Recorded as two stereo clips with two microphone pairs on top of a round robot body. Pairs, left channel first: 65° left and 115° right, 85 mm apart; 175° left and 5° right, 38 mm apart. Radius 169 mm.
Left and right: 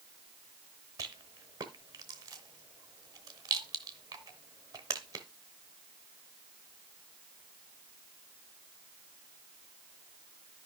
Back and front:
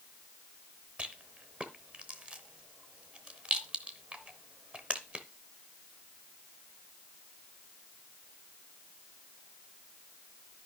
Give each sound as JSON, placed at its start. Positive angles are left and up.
{"t": 1.0, "sound": "a rattle", "azimuth_deg": -65, "distance_m": 1.1}